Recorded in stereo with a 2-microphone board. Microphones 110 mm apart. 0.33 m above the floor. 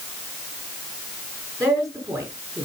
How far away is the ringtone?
I don't hear a ringtone.